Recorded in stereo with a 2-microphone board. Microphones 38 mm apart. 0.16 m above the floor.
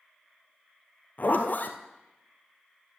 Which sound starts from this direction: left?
A zipper, at 1.2 s.